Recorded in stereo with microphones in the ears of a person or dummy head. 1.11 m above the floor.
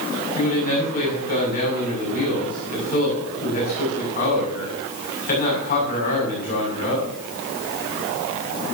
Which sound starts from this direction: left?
A man speaking, at 0.4 s.